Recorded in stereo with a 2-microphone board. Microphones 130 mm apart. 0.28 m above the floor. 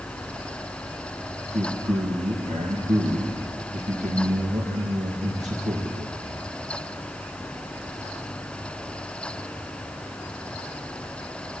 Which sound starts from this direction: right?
A man speaking, at 1.5 s.